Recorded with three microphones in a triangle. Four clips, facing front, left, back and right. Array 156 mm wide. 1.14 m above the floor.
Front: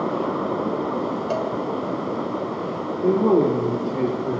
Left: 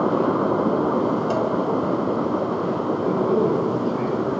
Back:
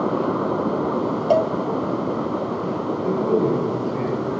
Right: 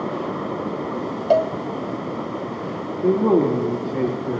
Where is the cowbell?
125° right, 1.2 m.